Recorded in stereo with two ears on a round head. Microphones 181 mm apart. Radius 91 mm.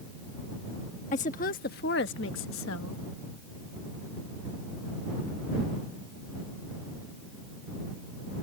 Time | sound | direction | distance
1.1 | a woman speaking | 35° left (ahead or behind) | ?